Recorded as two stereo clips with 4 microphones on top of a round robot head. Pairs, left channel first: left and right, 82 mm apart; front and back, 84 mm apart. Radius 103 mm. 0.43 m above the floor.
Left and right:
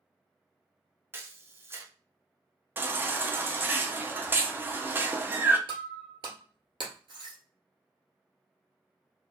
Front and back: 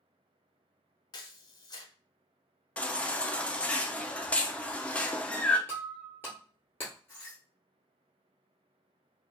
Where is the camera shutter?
30° right, 0.8 m.